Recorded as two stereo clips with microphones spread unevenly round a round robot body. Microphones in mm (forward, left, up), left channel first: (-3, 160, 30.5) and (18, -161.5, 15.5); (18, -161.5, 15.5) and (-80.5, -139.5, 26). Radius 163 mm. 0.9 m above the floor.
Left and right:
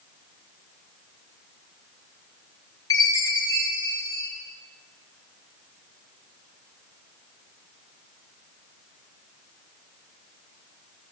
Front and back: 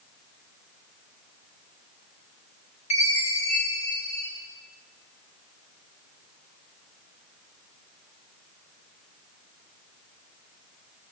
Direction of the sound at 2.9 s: 15° left.